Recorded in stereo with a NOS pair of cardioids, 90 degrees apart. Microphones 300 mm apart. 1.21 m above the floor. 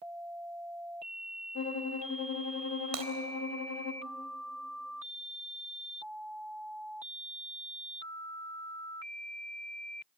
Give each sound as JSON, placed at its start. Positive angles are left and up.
{"t": 1.6, "sound": "a violin", "azimuth_deg": 55, "distance_m": 2.5}
{"t": 2.9, "sound": "breaking glass", "azimuth_deg": -60, "distance_m": 3.5}